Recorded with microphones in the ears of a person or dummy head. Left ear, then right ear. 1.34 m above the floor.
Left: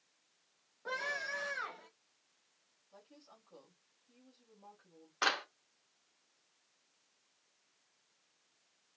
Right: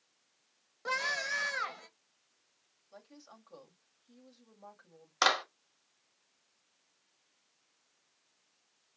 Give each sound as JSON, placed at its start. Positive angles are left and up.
{"t": 0.8, "sound": "a scream", "side_deg": -75, "distance_m": 1.6}
{"t": 2.9, "sound": "a woman speaking", "side_deg": -65, "distance_m": 2.0}
{"t": 5.2, "sound": "a clap", "side_deg": -80, "distance_m": 2.0}